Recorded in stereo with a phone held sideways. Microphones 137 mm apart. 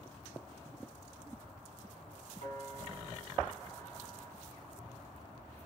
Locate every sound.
2.4 s a piano: 50° left (ahead or behind), 8 m